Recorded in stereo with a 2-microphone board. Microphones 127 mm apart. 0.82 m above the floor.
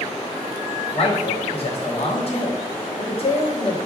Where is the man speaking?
45° left (ahead or behind), 1.3 m.